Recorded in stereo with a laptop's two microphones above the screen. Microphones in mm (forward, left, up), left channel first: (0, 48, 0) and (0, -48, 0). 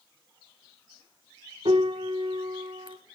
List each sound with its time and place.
1.6 s a piano: 70° right (ahead or behind), 1.2 m